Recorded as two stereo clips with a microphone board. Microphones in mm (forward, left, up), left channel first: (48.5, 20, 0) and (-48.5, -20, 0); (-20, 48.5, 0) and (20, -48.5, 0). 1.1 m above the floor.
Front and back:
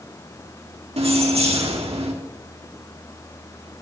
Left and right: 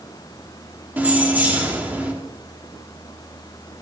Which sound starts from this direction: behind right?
Keys jangling, at 1.0 s.